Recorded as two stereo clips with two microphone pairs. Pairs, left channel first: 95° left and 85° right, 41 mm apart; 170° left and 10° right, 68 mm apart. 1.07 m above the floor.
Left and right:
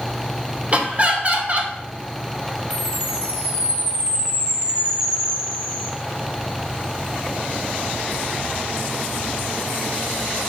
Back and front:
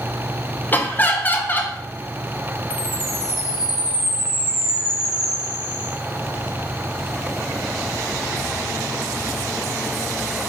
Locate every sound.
0.7 s laughter: 135° right, 0.6 m
2.7 s a chime: 35° right, 1.6 m